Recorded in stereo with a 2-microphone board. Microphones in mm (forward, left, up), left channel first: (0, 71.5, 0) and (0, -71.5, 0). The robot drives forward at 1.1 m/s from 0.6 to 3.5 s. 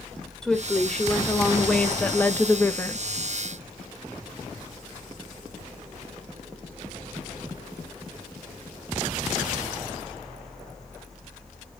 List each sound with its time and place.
0.4 s a woman speaking: 5° left (ahead or behind), 2.5 m; by 3.0 s 15° left (ahead or behind), 0.6 m